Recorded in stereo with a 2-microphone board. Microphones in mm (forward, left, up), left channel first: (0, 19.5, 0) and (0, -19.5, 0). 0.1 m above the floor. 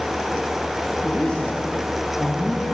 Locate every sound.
1.0 s a man speaking: 25° left (ahead or behind), 4.5 m